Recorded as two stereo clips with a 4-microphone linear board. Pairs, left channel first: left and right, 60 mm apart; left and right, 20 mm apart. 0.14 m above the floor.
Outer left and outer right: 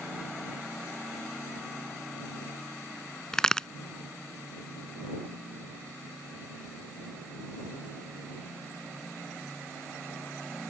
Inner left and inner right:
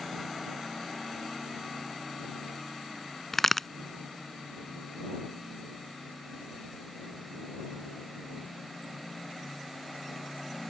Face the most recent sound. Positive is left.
turn(degrees=10)  # may be behind; listen again after turning